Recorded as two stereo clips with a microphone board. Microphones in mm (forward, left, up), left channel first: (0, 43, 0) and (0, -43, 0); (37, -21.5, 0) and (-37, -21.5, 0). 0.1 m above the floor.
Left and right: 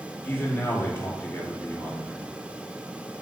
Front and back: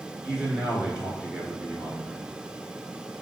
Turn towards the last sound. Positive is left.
turn(degrees=120)